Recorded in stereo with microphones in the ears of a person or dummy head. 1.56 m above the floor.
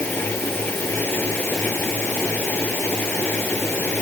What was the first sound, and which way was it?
A fan, 10° left (ahead or behind).